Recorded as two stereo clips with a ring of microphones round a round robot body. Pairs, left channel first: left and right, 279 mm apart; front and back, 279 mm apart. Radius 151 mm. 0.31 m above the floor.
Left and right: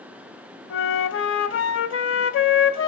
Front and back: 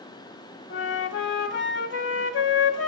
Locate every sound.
0.7 s a flute: 50° left, 0.9 m